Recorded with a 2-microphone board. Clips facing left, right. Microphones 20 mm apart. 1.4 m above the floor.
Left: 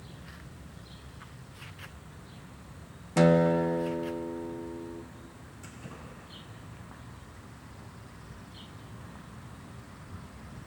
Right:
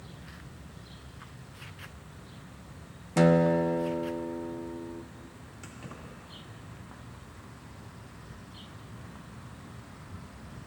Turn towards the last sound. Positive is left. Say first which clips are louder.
# right 1 dB
turn(degrees=-35)  # may be behind; listen again after turning